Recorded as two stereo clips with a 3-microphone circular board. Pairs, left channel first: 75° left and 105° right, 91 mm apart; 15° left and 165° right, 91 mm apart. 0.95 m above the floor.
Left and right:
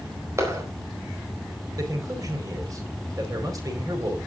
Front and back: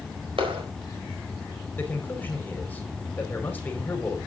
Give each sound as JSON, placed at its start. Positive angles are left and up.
{"t": 0.4, "sound": "a clap", "azimuth_deg": -160, "distance_m": 4.0}
{"t": 1.8, "sound": "a man speaking", "azimuth_deg": -55, "distance_m": 4.5}